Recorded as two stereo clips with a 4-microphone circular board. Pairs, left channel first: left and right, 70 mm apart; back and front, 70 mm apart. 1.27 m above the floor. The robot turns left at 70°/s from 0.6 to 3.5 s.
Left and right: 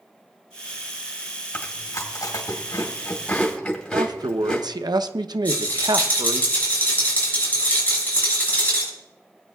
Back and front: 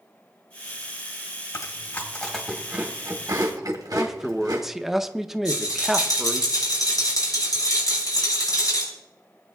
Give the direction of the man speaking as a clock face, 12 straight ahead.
3 o'clock.